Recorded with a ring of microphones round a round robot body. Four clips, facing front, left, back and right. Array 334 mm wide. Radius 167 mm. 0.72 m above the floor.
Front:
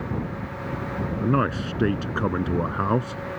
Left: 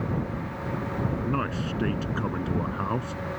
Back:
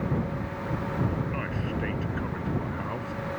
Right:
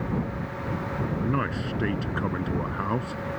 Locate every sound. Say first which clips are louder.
1.2 s a man speaking: right 1 dB, front 9 dB; 5° right